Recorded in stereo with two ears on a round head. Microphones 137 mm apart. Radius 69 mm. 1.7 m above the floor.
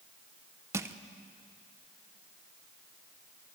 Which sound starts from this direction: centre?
Crushing, at 0.7 s.